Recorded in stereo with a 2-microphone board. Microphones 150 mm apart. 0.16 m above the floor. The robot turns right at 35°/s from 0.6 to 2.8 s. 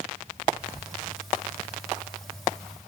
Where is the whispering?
25° right (ahead or behind), 1.8 m; by 0.9 s 30° right (ahead or behind), 1.8 m.